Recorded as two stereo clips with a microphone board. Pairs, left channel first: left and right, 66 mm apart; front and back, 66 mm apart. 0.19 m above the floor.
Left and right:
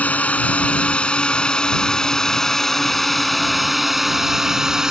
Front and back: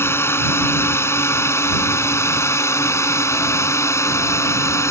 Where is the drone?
30° left; by 4.9 s 10° right.